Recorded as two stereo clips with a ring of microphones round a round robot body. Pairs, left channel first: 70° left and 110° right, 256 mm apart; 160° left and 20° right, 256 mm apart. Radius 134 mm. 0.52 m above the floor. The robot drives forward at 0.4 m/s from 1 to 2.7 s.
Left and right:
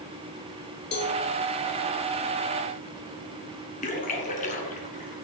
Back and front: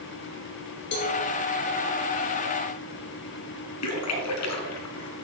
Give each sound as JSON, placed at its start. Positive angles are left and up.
{"t": 0.9, "sound": "a cowbell", "azimuth_deg": 115, "distance_m": 2.5}
{"t": 3.8, "sound": "a splash", "azimuth_deg": 130, "distance_m": 2.0}